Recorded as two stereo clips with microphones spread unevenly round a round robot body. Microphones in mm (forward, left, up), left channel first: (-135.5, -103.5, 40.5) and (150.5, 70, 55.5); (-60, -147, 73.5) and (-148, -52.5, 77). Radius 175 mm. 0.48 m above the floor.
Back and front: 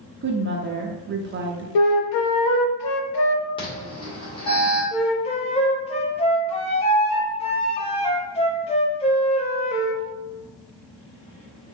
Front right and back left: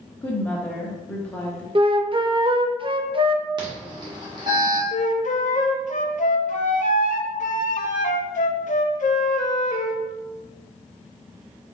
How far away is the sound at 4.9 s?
About 0.6 m.